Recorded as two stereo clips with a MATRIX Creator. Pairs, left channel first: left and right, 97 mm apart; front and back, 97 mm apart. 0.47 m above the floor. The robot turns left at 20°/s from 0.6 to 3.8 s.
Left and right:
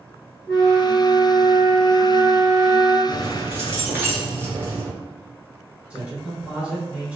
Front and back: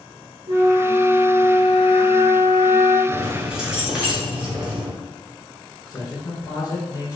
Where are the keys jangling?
100° right, 0.7 m; by 4.9 s 115° right, 0.7 m.